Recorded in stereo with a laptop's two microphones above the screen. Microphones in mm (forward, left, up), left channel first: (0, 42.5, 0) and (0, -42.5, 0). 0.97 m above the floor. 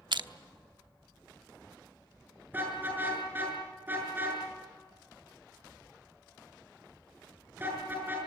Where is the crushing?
65° right (ahead or behind), 0.9 m.